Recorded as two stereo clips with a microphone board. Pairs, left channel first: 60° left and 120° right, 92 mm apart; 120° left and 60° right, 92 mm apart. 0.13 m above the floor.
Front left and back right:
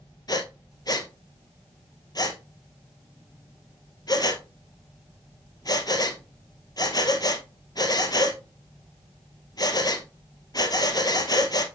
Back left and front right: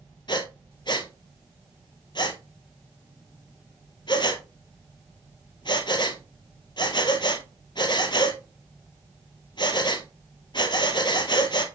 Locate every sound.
0.3 s breathing: 95° left, 1.3 m